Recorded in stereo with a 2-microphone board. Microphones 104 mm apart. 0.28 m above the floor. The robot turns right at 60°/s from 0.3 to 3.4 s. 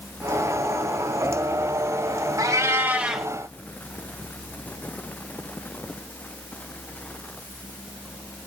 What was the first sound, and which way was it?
A cat meowing, 55° right.